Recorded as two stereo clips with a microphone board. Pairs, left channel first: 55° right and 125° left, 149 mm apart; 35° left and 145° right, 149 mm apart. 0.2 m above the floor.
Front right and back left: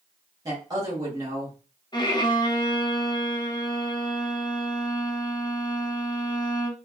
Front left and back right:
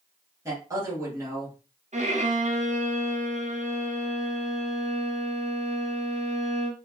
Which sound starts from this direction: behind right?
A violin, at 1.9 s.